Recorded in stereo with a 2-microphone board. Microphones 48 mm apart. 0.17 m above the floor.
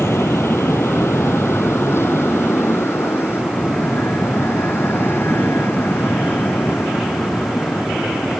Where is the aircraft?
55° left (ahead or behind); by 8.4 s 40° left (ahead or behind).